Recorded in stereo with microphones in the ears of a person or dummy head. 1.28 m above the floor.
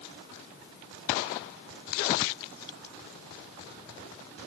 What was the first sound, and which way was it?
Only background noise.